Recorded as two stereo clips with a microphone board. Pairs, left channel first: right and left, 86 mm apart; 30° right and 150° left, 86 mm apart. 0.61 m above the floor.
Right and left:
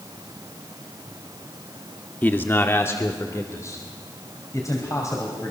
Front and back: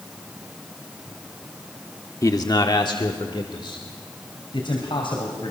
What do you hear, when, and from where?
2.2 s a man speaking: 35° right, 1.0 m; by 5.5 s 40° right, 4 m